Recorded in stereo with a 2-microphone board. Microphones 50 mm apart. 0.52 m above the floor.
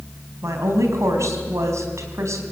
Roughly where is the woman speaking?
Right.